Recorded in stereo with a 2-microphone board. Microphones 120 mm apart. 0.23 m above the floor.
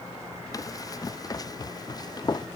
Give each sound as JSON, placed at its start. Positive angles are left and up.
{"t": 0.5, "sound": "running footsteps", "side_deg": 30}